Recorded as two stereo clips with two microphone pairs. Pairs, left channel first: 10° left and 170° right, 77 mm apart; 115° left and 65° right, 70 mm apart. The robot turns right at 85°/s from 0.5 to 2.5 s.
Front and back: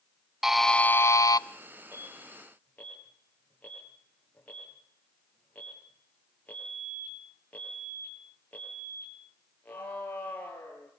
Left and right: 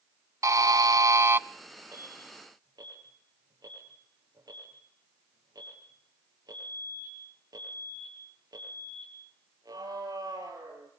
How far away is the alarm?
About 7.5 m.